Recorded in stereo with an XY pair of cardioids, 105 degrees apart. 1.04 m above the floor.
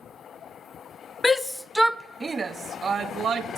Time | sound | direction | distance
1.2 | a shout | 20° left | 0.8 m